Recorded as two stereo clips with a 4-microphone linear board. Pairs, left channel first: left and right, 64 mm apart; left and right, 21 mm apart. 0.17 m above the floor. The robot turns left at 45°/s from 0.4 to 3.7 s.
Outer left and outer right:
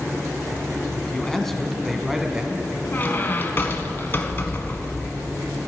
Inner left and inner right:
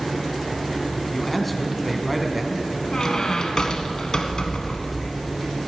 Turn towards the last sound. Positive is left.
turn(degrees=85)